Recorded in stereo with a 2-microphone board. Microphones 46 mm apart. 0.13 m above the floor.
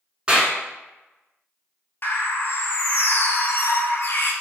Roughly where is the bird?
Left.